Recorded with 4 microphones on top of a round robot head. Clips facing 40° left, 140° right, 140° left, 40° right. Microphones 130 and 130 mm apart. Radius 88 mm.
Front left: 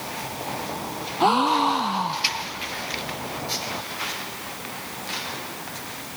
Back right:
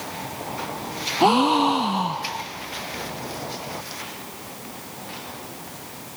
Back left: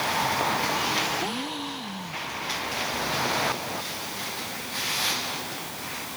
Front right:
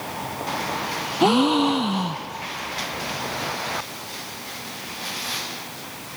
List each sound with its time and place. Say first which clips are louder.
1.2 s a gasp: back right 2 dB, front right 14 dB; 65° right